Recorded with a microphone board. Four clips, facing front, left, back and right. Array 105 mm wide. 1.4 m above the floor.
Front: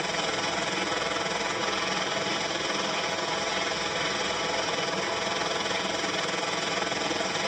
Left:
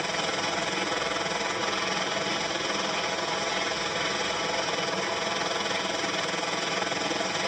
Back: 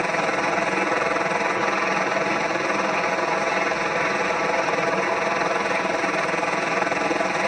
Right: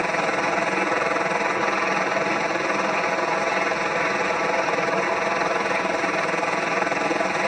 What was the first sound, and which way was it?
A helicopter, 135° right.